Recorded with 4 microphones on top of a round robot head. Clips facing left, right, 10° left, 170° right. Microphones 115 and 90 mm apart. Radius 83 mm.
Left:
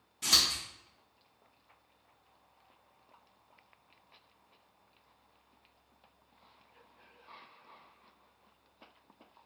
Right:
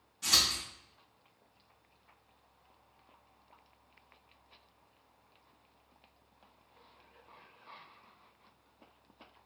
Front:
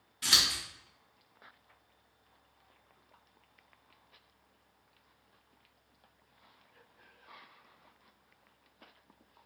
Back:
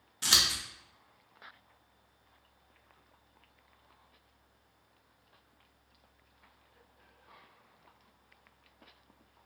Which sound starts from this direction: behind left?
Scissors, at 0.2 s.